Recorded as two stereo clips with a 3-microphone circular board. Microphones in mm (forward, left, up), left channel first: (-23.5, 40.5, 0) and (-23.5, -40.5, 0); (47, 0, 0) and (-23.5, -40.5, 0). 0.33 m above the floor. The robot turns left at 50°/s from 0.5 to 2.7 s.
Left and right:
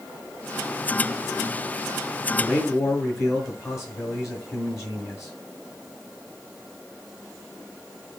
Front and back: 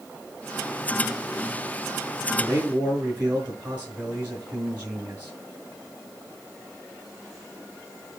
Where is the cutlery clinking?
No cutlery clinking in this recording.